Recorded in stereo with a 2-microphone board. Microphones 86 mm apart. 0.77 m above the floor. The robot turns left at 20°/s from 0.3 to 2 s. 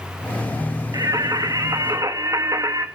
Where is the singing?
45° right (ahead or behind), 1.4 m; by 2.9 s 40° right (ahead or behind), 1.4 m.